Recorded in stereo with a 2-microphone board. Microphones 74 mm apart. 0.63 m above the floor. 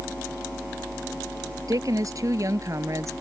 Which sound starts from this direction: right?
A woman speaking, at 1.7 s.